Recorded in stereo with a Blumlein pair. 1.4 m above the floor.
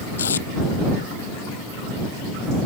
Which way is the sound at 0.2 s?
70° left.